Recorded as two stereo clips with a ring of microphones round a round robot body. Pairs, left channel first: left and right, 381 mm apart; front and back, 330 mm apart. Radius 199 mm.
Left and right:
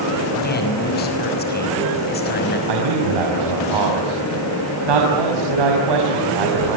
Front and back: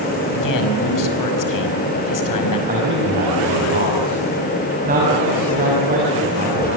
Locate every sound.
0.3 s a man speaking: 25° left, 5.5 m
2.7 s a man speaking: 110° right, 6 m